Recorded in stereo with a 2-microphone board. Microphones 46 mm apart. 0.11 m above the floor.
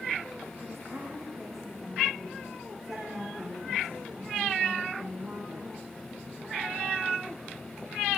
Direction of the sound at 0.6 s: 5° left (ahead or behind).